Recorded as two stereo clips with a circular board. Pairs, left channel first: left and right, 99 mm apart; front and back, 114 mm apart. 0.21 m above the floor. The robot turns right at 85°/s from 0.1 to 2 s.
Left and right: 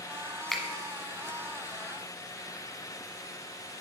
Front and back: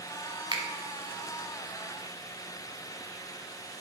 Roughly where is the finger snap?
Behind.